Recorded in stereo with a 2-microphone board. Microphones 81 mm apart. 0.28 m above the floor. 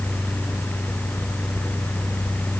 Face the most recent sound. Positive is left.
No sound to turn to.